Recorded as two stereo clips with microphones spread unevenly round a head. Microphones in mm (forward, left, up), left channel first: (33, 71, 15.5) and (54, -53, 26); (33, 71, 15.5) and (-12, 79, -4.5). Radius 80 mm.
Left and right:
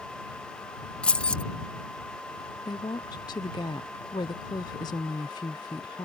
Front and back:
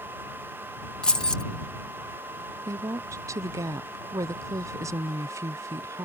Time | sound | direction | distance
1.0 | keys jangling | 15° left | ?
2.7 | a woman speaking | 165° left | ?